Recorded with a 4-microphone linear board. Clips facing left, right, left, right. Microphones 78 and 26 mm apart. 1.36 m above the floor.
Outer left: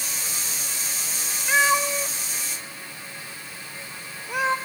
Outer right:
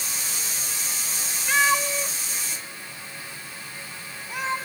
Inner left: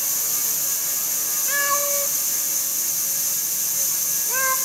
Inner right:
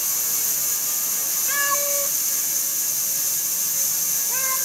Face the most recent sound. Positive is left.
turn(degrees=70)  # may be behind; listen again after turning